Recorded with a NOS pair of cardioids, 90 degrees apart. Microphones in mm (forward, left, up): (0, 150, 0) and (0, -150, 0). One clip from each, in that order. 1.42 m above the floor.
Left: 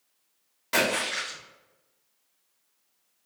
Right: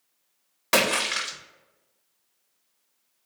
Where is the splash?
65° right, 1.4 m.